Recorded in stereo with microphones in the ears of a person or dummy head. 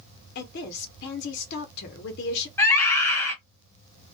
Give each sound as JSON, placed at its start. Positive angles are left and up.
{"t": 0.3, "sound": "a woman speaking", "side_deg": 55, "distance_m": 0.7}
{"t": 2.6, "sound": "a scream", "side_deg": 10, "distance_m": 1.0}